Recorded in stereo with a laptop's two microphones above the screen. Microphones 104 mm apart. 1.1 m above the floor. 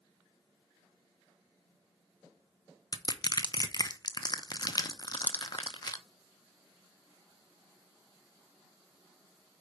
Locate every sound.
2.9 s crushing: 40° left (ahead or behind), 0.8 m